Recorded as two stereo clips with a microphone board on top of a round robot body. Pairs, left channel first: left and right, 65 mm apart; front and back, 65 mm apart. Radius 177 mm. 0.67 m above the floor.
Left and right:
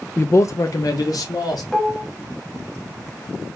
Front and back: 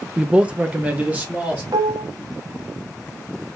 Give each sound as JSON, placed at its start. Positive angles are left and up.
{"t": 0.2, "sound": "a man speaking", "azimuth_deg": 110, "distance_m": 0.6}
{"t": 1.7, "sound": "dishes clattering", "azimuth_deg": 175, "distance_m": 0.9}